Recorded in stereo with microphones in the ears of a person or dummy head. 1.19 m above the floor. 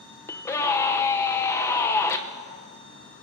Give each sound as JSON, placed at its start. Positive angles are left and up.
{"t": 0.3, "sound": "a scream", "side_deg": 10, "distance_m": 0.8}